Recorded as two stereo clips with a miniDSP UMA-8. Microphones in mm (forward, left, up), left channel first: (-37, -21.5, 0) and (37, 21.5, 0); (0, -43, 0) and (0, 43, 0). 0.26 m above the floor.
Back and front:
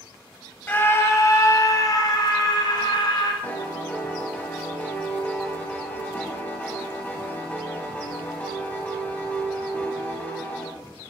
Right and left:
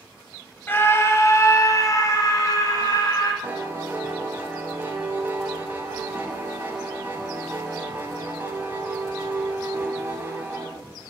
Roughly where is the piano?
Behind left.